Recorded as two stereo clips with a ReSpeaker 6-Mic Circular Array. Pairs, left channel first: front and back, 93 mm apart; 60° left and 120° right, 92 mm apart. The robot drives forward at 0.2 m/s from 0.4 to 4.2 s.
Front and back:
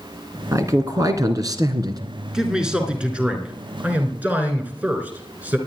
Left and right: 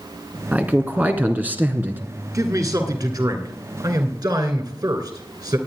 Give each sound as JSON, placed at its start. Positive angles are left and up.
{"t": 0.5, "sound": "a man speaking", "azimuth_deg": 180, "distance_m": 1.3}
{"t": 2.3, "sound": "a man speaking", "azimuth_deg": -100, "distance_m": 1.9}